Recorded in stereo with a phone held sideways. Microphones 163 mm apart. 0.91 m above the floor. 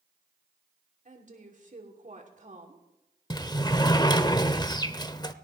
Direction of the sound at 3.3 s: 25° left (ahead or behind).